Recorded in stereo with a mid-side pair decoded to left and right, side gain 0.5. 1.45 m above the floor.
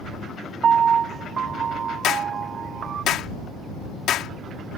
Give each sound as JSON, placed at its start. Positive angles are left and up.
{"t": 0.6, "sound": "a piano", "azimuth_deg": -50}
{"t": 2.0, "sound": "a clap", "azimuth_deg": 65}